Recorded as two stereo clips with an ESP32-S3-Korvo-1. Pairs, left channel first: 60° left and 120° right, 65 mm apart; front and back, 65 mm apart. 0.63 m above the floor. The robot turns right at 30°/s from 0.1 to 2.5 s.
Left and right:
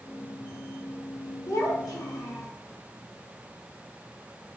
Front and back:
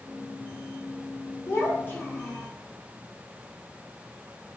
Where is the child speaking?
40° left, 1.0 m; by 2.5 s 70° left, 1.0 m.